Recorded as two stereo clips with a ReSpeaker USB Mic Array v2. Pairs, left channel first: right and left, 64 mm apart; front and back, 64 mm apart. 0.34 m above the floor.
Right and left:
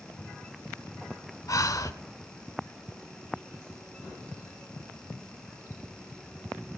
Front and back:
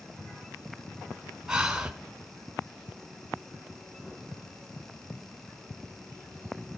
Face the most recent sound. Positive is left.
turn(degrees=-100)